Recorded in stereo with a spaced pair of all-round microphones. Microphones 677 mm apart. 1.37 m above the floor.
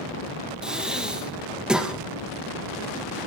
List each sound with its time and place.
0.6 s breathing: centre (ahead or behind), 1.8 m